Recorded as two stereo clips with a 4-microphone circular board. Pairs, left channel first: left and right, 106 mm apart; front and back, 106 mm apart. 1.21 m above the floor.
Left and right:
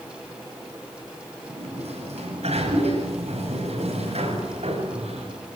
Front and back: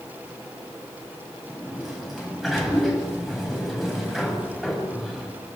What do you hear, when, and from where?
1.5 s a sliding door: 90° right, 9 m